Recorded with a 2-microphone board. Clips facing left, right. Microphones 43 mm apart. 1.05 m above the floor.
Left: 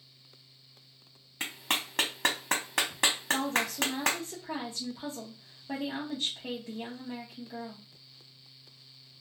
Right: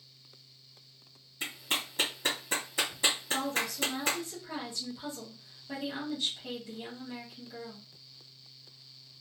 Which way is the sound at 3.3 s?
35° left (ahead or behind).